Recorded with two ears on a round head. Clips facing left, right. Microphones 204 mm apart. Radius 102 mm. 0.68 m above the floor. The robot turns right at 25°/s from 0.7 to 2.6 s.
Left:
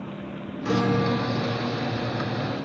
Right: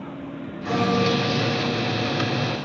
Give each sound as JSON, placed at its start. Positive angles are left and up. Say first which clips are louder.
{"t": 0.7, "sound": "a guitar", "louder": "right 1 dB", "azimuth_deg": 35, "distance_m": 0.5}